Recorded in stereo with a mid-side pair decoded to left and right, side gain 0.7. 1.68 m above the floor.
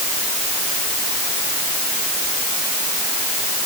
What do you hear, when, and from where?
Only background noise.